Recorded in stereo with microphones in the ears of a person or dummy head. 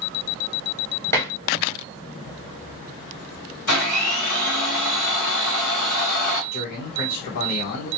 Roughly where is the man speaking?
Left.